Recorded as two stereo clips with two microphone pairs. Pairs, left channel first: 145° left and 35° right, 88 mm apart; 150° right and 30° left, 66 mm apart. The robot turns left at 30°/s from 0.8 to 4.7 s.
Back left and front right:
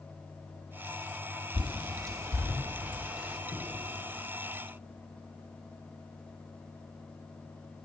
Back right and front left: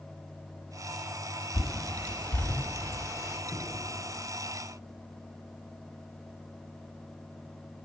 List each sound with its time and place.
1.5 s a bird: 65° right, 1.9 m; by 3.4 s 120° right, 1.9 m
3.5 s knocking: 45° right, 6 m; by 3.8 s 55° right, 6 m